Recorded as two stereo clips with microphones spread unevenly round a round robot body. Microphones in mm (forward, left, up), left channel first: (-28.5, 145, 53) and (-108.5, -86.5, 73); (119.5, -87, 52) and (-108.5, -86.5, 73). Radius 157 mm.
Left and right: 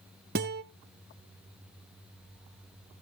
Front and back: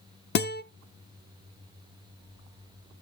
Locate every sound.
0.3 s a guitar: 50° right, 0.6 m